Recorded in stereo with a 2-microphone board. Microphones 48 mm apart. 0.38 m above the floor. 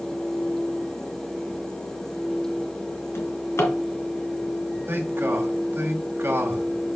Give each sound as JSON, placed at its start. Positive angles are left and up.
{"t": 3.1, "sound": "a drawer", "side_deg": 65, "distance_m": 2.5}
{"t": 4.9, "sound": "a man speaking", "side_deg": -50, "distance_m": 2.0}